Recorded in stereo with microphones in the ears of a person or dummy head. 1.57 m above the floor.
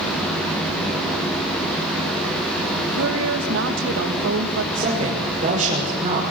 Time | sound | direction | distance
2.9 | a woman speaking | 70° right (ahead or behind) | 2 m
4.7 | a woman speaking | 35° right (ahead or behind) | 6 m